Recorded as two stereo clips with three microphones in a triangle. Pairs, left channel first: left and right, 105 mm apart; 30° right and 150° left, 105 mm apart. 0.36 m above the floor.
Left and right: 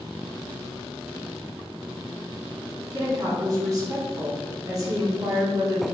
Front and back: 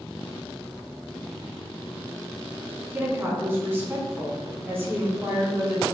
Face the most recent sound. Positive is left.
turn(degrees=-140)